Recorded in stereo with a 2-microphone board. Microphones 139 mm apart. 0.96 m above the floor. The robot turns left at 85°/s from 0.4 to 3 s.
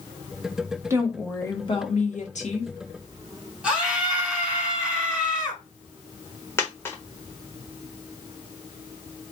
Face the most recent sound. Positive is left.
turn(degrees=20)  # may be behind; listen again after turning